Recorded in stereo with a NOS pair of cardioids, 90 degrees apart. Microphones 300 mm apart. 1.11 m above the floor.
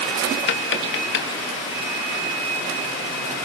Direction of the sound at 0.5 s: 40° left.